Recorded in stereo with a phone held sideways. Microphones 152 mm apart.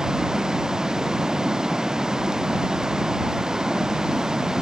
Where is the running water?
5° right (ahead or behind).